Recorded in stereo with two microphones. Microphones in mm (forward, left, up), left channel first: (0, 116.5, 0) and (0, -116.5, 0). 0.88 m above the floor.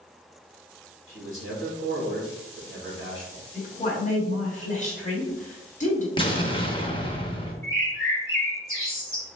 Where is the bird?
60° left (ahead or behind), 1.3 m.